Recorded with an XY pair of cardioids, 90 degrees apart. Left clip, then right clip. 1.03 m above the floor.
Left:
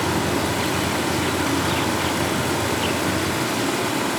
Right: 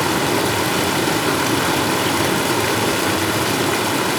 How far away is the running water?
About 2.5 m.